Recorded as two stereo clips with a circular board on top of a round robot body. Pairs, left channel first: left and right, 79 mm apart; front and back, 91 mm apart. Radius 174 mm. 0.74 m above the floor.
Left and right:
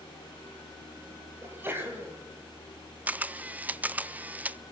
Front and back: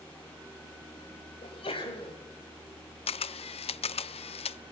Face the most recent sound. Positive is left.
turn(degrees=-15)